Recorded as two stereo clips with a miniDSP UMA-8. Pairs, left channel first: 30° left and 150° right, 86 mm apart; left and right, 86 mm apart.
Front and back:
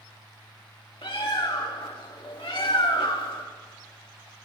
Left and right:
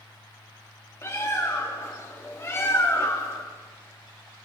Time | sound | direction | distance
1.0 | a bird | 35° left | 2.5 m